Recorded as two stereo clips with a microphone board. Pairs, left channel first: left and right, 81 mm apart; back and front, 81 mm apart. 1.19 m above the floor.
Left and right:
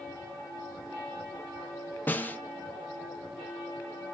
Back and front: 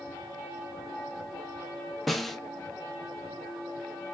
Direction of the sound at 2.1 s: 100° left.